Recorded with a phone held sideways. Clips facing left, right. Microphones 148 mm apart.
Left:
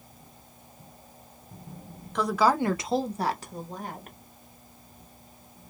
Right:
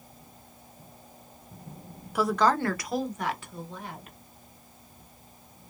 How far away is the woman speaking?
About 0.5 m.